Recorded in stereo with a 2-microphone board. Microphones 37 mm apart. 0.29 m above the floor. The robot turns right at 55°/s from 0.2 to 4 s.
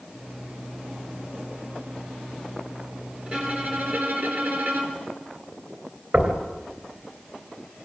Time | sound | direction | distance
3.3 | a violin | 150° right | 4 m
6.1 | knocking | 50° right (ahead or behind) | 3 m